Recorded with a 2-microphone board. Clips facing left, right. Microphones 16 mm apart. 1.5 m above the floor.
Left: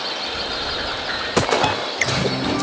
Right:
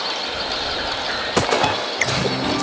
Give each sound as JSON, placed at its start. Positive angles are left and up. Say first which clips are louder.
{"t": 1.6, "sound": "a piano", "louder": "even", "side_deg": -5}